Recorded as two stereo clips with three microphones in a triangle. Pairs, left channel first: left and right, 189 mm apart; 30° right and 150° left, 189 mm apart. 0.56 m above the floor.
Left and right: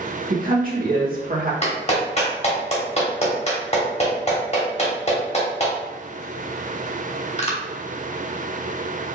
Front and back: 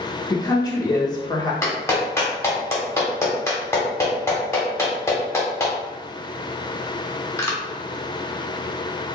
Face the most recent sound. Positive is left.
turn(degrees=45)